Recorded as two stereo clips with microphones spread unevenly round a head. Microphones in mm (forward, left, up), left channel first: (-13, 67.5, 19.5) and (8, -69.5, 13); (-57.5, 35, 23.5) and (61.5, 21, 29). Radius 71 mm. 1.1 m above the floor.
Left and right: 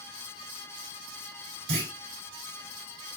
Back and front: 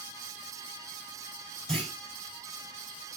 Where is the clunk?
100° right, 5.5 m.